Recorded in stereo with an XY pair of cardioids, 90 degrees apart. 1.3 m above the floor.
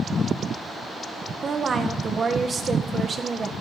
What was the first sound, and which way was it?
A woman speaking, 40° right.